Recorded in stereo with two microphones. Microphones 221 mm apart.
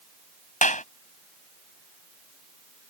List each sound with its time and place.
0.6 s a clap: 35° left (ahead or behind)